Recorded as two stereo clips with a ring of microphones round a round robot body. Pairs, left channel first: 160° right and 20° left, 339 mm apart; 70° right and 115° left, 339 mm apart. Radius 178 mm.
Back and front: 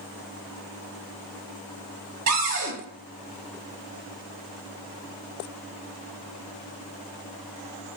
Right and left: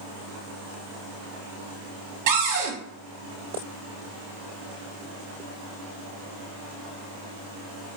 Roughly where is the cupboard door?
Left.